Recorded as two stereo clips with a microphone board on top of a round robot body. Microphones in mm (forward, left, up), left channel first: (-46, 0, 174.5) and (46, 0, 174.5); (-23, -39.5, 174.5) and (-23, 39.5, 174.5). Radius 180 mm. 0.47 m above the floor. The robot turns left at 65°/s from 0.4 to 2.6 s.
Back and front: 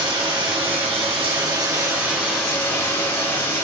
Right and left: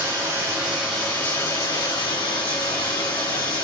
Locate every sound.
0.0 s running water: 30° left, 2.5 m; by 3.6 s 110° right, 2.5 m